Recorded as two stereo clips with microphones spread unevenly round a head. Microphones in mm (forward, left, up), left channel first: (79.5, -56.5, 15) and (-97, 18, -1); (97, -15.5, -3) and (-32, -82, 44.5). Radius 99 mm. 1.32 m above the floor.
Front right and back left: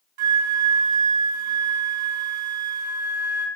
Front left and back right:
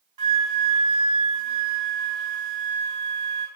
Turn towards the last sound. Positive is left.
turn(degrees=165)